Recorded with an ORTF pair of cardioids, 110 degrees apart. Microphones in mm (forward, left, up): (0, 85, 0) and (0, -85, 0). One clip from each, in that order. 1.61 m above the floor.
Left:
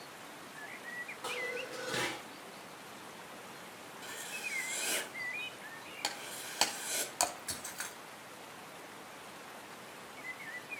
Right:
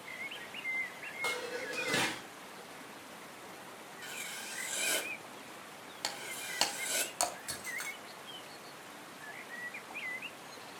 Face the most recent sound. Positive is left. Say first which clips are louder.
# right 1 dB
turn(degrees=5)